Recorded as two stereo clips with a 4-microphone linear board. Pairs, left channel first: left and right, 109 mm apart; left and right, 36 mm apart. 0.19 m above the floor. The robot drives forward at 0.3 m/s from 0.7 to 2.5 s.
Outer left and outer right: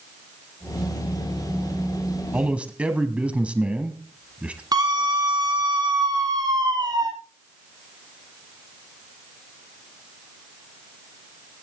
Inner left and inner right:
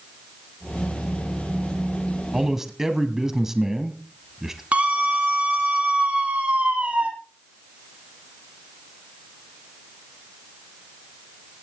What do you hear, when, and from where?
2.3 s a man speaking: 10° right (ahead or behind), 1.4 m
4.7 s a scream: 40° right (ahead or behind), 1.9 m